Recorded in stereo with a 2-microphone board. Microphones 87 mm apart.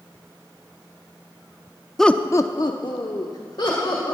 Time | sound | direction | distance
2.0 | laughter | 5° left (ahead or behind) | 0.6 m